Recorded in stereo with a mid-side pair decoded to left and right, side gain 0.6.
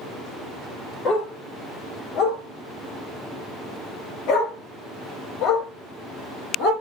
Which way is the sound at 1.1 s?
50° left.